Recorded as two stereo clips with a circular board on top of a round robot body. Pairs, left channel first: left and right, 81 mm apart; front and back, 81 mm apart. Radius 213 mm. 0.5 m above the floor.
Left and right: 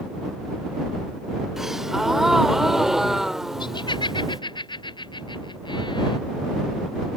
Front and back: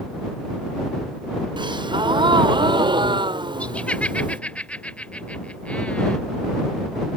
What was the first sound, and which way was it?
A gasp, 175° right.